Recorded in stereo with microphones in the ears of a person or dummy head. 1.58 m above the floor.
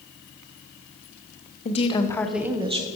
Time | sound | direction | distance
1.6 | a woman speaking | 40° left (ahead or behind) | 1.2 m